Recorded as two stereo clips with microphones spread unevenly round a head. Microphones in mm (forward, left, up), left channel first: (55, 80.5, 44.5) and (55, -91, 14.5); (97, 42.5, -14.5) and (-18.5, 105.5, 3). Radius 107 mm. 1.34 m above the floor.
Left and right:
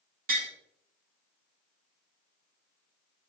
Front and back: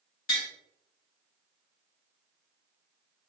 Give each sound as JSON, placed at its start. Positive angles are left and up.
{"t": 0.3, "sound": "tapping", "azimuth_deg": -50, "distance_m": 2.0}